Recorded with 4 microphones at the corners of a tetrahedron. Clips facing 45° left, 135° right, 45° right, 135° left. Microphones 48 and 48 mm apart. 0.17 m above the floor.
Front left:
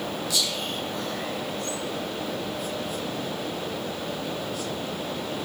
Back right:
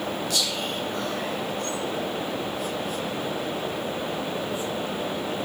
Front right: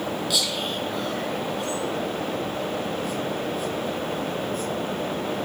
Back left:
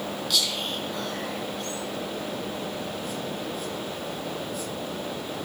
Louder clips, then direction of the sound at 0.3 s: Back right 1 dB, front right 2 dB; 130° right.